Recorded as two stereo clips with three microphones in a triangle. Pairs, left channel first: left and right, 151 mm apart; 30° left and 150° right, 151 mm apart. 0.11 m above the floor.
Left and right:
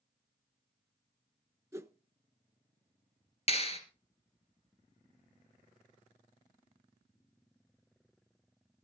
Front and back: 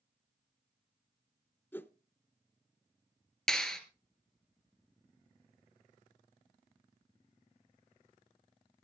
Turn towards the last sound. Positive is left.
turn(degrees=115)